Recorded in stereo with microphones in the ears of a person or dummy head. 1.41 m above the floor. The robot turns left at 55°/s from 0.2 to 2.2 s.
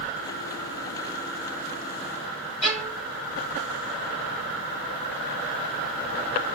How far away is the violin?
About 3 m.